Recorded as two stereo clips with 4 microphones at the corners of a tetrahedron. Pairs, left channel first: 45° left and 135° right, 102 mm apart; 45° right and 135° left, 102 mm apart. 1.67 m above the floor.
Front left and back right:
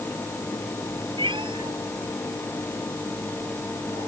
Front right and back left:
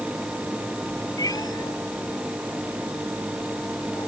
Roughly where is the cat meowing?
Right.